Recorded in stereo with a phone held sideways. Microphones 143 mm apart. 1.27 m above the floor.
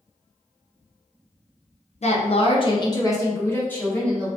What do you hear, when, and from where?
2.0 s a woman speaking: 50° left (ahead or behind), 0.5 m; by 4.3 s 10° left (ahead or behind), 1.2 m